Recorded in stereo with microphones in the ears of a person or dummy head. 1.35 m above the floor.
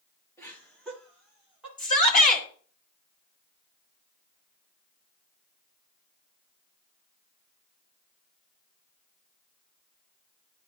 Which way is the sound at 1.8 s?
40° left (ahead or behind).